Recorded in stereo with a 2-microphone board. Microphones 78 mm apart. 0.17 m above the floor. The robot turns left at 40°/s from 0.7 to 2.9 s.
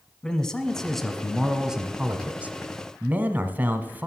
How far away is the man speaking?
About 1.1 m.